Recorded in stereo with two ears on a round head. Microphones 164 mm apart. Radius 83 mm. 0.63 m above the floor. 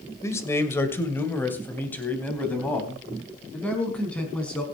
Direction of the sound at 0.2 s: 15° left (ahead or behind).